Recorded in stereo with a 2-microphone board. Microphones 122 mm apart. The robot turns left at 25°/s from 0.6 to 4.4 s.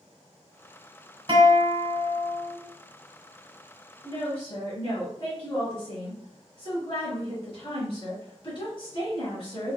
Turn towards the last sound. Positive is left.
turn(degrees=50)  # may be behind; listen again after turning